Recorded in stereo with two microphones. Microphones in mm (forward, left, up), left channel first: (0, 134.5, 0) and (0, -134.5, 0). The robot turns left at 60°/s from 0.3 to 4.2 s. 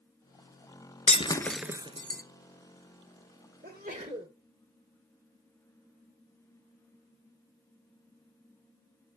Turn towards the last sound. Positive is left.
turn(degrees=-150)